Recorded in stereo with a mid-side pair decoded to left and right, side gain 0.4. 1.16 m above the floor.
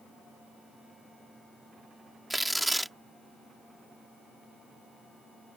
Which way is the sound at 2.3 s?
5° right.